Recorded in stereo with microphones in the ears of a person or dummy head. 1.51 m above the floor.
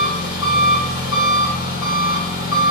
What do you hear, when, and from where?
0.0 s an engine running: 65° left (ahead or behind), 1.4 m